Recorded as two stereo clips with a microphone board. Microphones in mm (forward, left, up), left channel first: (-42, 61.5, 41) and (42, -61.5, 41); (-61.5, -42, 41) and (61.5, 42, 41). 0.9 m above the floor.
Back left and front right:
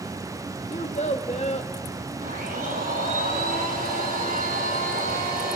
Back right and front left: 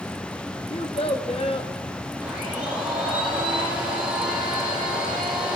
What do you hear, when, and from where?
0.7 s a child speaking: 165° left, 0.9 m
2.2 s a blender: 50° right, 7.5 m